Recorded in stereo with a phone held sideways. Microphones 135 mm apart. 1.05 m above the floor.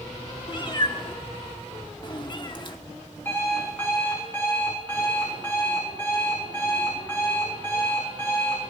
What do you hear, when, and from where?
0.5 s a cat meowing: 35° left (ahead or behind), 0.9 m
3.2 s an alarm clock: 15° left (ahead or behind), 7 m